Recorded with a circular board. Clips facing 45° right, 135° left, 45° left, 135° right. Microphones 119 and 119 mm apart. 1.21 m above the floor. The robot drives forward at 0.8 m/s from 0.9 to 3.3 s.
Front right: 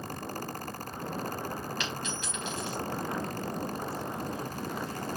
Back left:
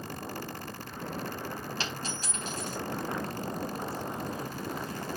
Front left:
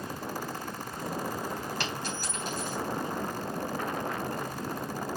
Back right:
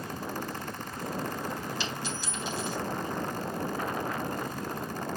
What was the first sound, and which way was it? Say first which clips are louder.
A dropped coin: front right 1 dB, front left 1 dB; 80° left.